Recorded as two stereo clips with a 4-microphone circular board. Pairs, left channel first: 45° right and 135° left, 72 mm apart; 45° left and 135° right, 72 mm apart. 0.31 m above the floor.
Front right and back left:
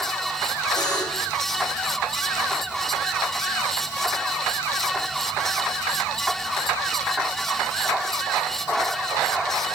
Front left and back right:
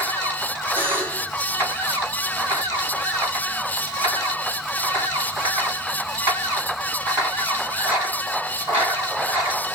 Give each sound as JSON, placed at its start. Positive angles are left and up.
{"t": 0.8, "sound": "a buzzer", "azimuth_deg": -70, "distance_m": 3.0}